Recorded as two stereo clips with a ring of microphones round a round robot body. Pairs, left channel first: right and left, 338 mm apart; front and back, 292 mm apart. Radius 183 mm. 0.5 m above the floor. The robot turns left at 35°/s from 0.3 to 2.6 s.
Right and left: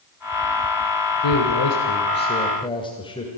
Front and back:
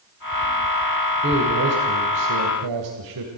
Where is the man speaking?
120° right, 2.5 m; by 3.3 s 165° right, 2.5 m.